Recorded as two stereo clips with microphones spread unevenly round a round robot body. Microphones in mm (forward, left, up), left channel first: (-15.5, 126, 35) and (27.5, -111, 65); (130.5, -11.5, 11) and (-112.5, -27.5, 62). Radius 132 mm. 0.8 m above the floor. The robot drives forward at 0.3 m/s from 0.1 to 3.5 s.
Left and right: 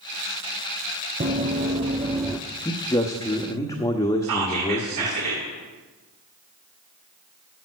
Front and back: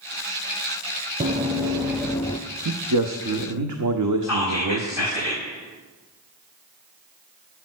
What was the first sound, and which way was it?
Running footsteps, 130° right.